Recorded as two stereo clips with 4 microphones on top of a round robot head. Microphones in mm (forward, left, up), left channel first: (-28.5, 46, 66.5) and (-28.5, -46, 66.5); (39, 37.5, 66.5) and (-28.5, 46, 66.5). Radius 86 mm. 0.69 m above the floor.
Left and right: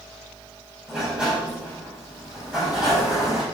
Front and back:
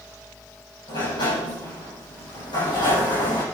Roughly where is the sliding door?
Ahead.